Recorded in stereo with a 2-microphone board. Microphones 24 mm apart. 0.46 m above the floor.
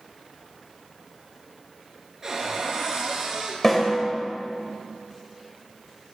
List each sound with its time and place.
2.2 s a cupboard door: 20° right (ahead or behind), 2.5 m
3.6 s a snare drum: 20° left (ahead or behind), 1.8 m